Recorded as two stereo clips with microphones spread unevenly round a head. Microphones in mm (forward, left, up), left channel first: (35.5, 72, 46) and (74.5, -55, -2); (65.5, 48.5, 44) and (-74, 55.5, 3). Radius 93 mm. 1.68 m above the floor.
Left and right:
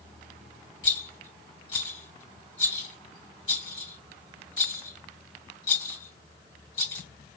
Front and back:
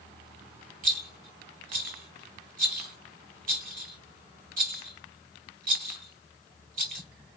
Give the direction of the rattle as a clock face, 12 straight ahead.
7 o'clock.